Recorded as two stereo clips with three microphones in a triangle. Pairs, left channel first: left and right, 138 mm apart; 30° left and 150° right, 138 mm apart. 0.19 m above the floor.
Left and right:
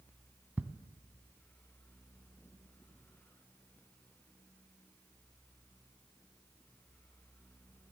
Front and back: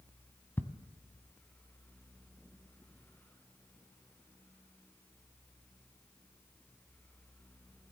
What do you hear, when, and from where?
0.6 s ticking: 30° right, 0.7 m